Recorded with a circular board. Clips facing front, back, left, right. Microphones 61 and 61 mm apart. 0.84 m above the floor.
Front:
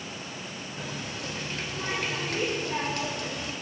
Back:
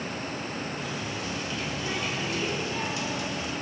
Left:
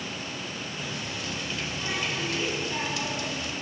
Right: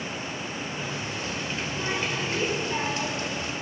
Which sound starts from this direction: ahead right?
A running tap, at 0.8 s.